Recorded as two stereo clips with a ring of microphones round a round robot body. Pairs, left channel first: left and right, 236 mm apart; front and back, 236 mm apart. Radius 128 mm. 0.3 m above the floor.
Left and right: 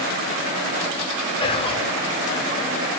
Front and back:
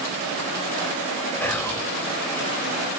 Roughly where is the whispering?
Left.